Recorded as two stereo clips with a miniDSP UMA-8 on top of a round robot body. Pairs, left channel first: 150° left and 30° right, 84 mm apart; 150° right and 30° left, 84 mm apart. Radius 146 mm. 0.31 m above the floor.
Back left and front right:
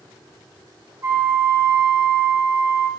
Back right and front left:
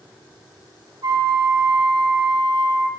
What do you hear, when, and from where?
1.0 s a flute: 20° left, 1.3 m